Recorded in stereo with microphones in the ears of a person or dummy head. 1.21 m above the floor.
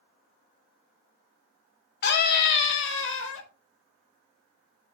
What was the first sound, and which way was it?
A scream, 60° left (ahead or behind).